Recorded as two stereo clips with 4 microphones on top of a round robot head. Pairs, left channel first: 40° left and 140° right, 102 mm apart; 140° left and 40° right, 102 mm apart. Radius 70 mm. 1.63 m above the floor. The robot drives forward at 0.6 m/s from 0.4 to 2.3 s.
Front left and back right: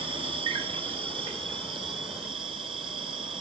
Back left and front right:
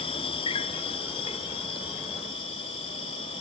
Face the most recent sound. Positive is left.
turn(degrees=180)